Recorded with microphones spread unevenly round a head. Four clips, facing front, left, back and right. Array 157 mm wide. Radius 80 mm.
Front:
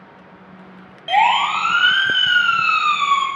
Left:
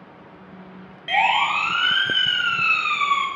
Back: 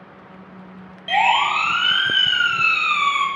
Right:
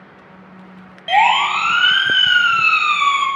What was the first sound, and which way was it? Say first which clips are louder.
A siren: right 6 dB, front 2 dB; 65° right.